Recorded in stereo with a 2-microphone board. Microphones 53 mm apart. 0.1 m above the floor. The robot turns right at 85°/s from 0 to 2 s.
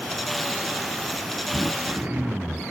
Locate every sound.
1.5 s throat clearing: 85° right, 0.6 m; by 2.6 s 45° right, 0.6 m